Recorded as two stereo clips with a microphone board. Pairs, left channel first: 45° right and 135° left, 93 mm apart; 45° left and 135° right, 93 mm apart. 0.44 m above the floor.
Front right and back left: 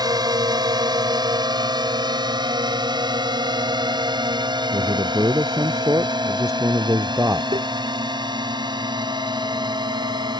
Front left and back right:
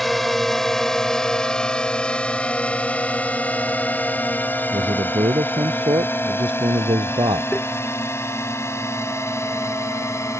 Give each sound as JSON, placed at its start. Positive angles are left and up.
{"t": 0.0, "sound": "a drone", "azimuth_deg": 135}
{"t": 4.7, "sound": "a man speaking", "azimuth_deg": -165}
{"t": 7.5, "sound": "tapping", "azimuth_deg": 120}